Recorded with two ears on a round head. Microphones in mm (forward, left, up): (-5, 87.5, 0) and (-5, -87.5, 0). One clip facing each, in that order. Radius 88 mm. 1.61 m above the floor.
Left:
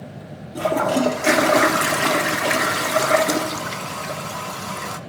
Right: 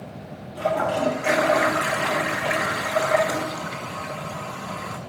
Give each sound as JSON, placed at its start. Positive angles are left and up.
{"t": 0.6, "sound": "a toilet flushing", "side_deg": 55, "distance_m": 0.6}